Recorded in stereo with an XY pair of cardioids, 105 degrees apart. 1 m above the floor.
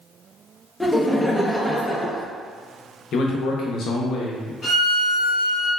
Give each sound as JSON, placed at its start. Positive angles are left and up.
{"t": 0.8, "sound": "laughter", "azimuth_deg": 5, "distance_m": 0.7}
{"t": 3.1, "sound": "a man speaking", "azimuth_deg": 65, "distance_m": 0.8}
{"t": 4.6, "sound": "a violin", "azimuth_deg": 40, "distance_m": 1.8}